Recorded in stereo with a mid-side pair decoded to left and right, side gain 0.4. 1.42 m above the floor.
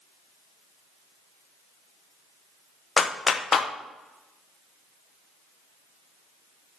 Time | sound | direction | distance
3.0 | a clap | 45° left | 0.8 m